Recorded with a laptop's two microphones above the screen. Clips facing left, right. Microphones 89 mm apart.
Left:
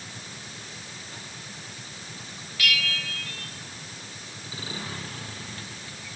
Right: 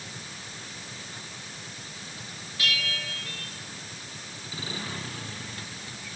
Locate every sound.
2.6 s a bell: 30° right (ahead or behind), 1.4 m